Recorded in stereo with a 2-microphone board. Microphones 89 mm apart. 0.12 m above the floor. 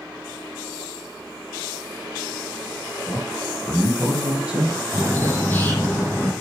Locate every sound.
3.1 s a man speaking: 5° right (ahead or behind), 3.5 m; by 5.5 s 25° right (ahead or behind), 1.8 m
4.9 s a bird: 25° left (ahead or behind), 4.5 m